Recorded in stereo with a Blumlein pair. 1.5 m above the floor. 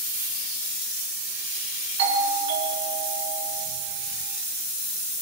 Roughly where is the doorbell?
Ahead right.